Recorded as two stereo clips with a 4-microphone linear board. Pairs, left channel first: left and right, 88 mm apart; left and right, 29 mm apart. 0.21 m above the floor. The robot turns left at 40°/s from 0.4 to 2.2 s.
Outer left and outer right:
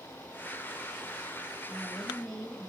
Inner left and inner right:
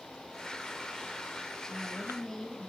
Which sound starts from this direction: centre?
A woman speaking, at 1.7 s.